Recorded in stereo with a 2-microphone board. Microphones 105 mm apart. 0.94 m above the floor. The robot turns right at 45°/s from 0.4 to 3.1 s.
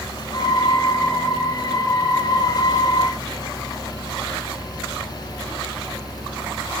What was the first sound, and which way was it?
Only background noise.